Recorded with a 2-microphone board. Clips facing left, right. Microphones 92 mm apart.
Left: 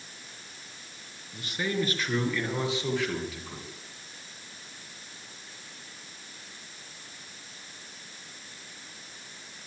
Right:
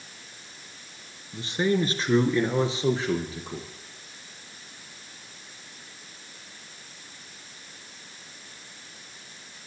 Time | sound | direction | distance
1.3 | a man speaking | 30° right (ahead or behind) | 2.5 m